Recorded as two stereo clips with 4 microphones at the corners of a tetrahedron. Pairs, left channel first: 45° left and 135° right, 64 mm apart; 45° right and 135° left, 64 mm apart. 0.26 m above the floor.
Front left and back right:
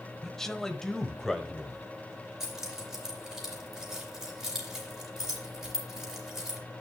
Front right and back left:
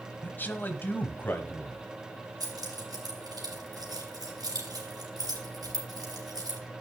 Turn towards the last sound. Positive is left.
turn(degrees=140)